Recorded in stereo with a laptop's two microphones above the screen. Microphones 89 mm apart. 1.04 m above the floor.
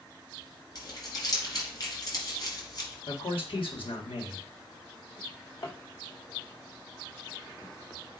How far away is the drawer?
About 2.5 m.